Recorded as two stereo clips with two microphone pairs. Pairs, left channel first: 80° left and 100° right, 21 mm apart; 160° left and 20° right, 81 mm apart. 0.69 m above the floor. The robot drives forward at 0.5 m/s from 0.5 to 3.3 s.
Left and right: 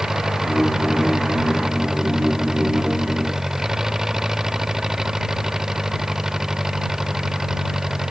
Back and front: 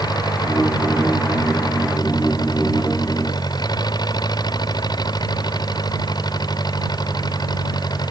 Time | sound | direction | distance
0.0 | an engine running | 165° right | ?